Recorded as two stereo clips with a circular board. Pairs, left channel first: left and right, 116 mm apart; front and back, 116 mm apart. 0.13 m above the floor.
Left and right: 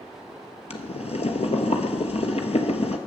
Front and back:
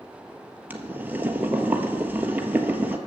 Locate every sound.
0.7 s boiling: 105° left, 1.2 m